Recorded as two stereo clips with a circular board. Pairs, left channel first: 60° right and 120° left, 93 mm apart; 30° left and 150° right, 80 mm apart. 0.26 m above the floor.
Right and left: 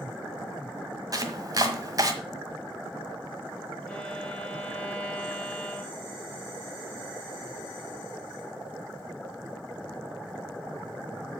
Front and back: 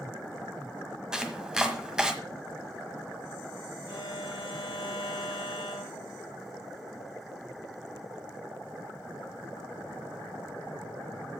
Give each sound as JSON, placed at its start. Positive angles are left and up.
{"t": 1.1, "sound": "chopping", "azimuth_deg": 135, "distance_m": 1.5}
{"t": 3.9, "sound": "a violin", "azimuth_deg": 15, "distance_m": 7.5}